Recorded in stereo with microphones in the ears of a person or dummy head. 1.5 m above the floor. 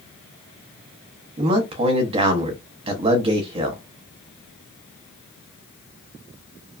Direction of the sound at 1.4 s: 30° right (ahead or behind).